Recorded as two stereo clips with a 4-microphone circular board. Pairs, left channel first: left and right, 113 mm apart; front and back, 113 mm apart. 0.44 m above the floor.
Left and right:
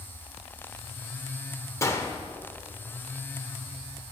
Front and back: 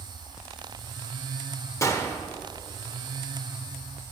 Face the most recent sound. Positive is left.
turn(degrees=45)